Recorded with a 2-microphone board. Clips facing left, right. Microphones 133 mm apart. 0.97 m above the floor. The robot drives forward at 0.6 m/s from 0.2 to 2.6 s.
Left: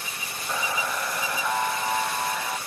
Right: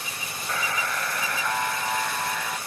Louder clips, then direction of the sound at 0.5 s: Left 1 dB; 15° left (ahead or behind).